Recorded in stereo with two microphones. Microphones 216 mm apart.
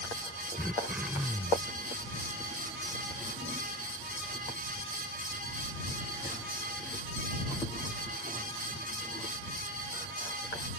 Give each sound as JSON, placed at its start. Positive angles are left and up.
{"t": 0.6, "sound": "throat clearing", "side_deg": -5}